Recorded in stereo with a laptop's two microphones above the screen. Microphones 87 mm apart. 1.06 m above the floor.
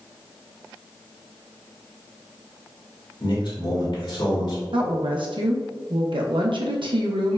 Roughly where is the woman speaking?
Right.